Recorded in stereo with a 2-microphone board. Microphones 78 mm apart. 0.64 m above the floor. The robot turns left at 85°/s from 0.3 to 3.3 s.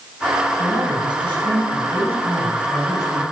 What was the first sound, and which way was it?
A man speaking, 30° right.